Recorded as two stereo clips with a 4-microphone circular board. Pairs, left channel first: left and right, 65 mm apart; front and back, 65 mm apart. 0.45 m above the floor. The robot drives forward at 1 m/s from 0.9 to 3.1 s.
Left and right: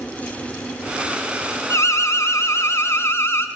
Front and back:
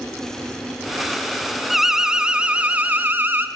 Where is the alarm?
95° left, 2.5 m; by 3.5 s 130° left, 2.5 m.